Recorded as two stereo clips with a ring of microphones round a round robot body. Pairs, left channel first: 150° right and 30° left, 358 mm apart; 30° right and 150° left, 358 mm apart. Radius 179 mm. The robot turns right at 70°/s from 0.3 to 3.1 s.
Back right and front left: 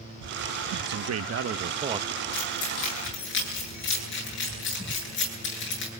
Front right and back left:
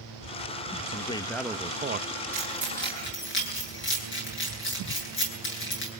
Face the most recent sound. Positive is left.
turn(degrees=-90)